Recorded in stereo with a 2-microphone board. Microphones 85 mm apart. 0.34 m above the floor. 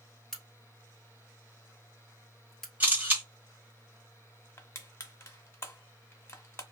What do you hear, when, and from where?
0.3 s a crack: 5° left (ahead or behind), 1.1 m
2.8 s a camera shutter: 20° right (ahead or behind), 1.2 m
4.6 s crushing: 30° left (ahead or behind), 0.7 m